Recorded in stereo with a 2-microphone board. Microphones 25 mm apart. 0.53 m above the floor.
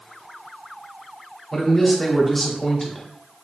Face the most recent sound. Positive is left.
turn(degrees=10)  # may be behind; listen again after turning